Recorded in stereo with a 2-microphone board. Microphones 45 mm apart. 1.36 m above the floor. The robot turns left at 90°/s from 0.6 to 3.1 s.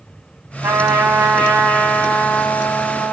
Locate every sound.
0.6 s a trumpet: 100° right, 2 m; by 3.1 s 40° left, 2 m